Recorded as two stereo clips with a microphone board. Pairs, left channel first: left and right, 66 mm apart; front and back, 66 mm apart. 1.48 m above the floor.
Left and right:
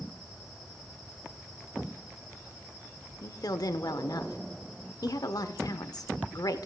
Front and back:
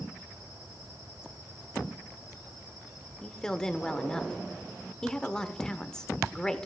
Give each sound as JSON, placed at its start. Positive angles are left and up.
{"t": 3.2, "sound": "a woman speaking", "azimuth_deg": 80, "distance_m": 0.7}